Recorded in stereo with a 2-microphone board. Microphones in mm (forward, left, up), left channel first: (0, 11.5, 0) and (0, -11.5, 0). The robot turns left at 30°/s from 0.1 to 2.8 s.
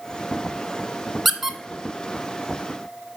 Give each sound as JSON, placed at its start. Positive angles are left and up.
{"t": 1.2, "sound": "a squeak", "side_deg": 0, "distance_m": 0.5}